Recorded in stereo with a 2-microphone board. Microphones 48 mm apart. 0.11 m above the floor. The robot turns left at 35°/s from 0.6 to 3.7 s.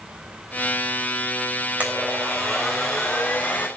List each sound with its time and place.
1.8 s a blender: 150° right, 4.5 m; by 3.7 s 145° left, 4.5 m